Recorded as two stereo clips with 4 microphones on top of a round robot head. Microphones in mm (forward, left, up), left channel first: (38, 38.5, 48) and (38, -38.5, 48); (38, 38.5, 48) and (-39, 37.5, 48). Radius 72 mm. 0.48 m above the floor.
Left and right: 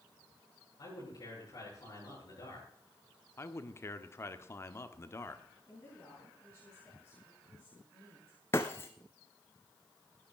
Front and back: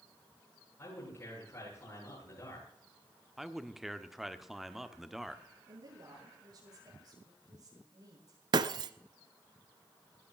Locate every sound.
0.8 s a man speaking: 50° left, 10 m
3.4 s a man speaking: 95° left, 1.4 m
5.7 s a woman speaking: 160° left, 9 m
8.5 s breaking glass: 160° left, 0.7 m